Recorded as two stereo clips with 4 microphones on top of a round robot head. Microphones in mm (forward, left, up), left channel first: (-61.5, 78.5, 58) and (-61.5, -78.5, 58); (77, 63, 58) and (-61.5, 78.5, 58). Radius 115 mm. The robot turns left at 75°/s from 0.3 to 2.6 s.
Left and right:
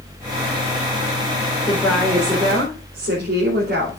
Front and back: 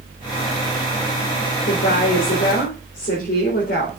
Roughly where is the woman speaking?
Ahead left.